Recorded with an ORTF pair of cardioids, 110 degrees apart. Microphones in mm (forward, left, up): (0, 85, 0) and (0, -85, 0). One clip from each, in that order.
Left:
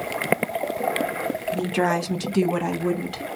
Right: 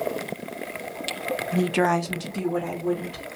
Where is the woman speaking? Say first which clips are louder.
Right 1 dB; 25° right, 0.6 m; by 3.2 s 70° left, 1.1 m.